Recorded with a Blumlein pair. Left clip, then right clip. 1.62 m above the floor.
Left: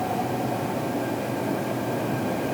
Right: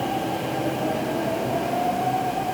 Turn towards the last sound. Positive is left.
No sound to turn to.